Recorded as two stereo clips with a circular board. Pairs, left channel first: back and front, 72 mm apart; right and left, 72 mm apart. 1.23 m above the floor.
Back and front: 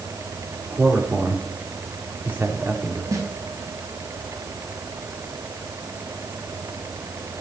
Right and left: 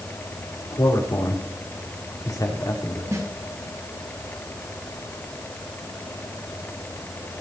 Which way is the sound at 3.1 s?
45° left.